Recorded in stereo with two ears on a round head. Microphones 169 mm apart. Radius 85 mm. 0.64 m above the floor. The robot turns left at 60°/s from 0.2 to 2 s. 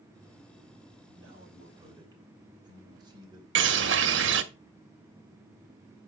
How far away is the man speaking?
About 3 m.